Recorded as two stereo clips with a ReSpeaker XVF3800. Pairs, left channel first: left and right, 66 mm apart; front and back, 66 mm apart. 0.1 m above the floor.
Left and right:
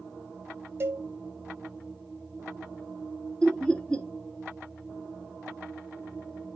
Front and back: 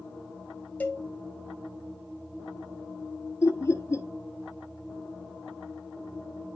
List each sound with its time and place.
0.8 s a cowbell: 55° right, 1.5 m
3.4 s laughter: 20° left, 1.6 m